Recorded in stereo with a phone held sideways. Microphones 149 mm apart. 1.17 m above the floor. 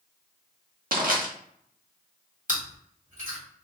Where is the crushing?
75° right (ahead or behind), 1.1 m.